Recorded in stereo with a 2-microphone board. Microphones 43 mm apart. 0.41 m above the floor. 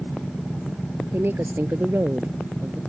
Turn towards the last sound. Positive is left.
turn(degrees=-55)  # may be behind; listen again after turning